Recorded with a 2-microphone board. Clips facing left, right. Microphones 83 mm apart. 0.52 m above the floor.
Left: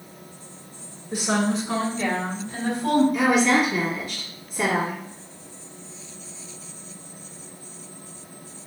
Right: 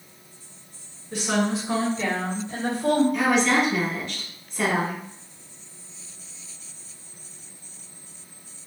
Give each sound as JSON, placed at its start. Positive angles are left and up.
{"t": 1.1, "sound": "a woman speaking", "side_deg": 15, "distance_m": 1.6}
{"t": 3.1, "sound": "a woman speaking", "side_deg": 5, "distance_m": 1.1}